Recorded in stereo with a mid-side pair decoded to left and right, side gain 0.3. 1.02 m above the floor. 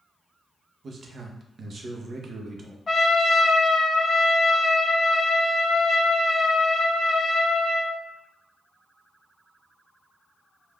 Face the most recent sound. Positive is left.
turn(degrees=55)